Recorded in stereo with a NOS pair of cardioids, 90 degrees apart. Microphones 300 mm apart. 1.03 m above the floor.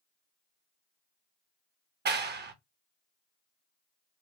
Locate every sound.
2.0 s a clap: 35° right, 0.6 m